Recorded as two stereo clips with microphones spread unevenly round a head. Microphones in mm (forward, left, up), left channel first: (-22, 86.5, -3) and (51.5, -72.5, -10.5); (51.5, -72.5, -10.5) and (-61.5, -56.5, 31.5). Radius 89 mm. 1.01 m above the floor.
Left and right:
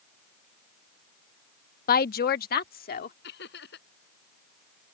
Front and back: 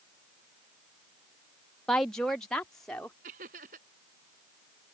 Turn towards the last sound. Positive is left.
turn(degrees=150)